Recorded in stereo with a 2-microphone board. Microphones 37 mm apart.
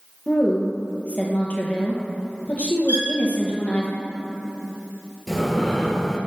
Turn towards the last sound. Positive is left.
turn(degrees=10)  # may be behind; listen again after turning